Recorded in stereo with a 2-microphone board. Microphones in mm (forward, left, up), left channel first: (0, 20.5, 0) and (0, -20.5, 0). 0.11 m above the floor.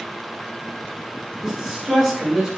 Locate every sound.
1.4 s a man speaking: 10° right (ahead or behind), 1.3 m